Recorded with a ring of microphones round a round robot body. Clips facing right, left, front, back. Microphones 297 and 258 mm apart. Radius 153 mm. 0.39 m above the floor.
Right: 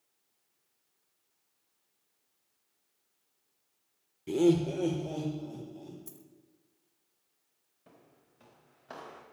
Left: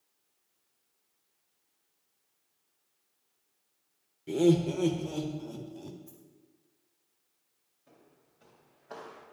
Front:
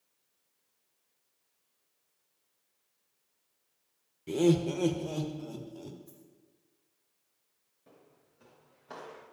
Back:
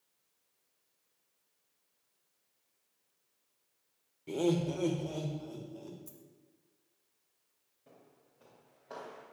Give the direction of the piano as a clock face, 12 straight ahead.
No piano in this recording.